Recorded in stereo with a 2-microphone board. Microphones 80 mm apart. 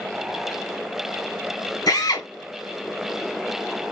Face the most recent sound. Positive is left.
turn(degrees=55)  # may be behind; listen again after turning